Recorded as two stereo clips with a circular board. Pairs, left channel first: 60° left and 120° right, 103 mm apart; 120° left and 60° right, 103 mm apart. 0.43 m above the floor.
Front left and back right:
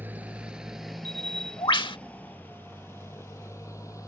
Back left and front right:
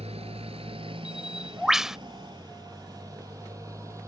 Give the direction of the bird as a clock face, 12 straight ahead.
11 o'clock.